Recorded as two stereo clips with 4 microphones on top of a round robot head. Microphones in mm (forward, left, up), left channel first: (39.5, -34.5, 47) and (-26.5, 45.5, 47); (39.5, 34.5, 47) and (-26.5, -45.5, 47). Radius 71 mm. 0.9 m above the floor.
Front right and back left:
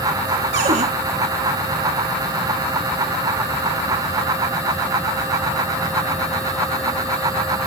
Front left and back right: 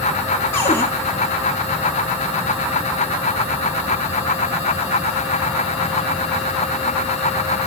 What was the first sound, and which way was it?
A cupboard door, 120° left.